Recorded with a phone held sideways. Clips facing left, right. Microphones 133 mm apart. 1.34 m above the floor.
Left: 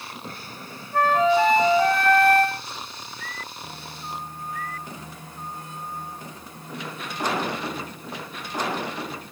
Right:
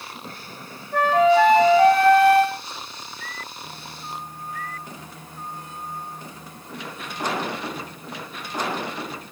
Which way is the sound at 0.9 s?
70° right (ahead or behind).